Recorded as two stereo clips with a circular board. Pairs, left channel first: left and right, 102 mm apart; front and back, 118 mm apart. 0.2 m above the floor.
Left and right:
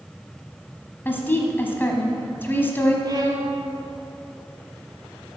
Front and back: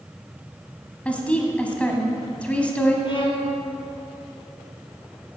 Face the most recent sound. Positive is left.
turn(degrees=-45)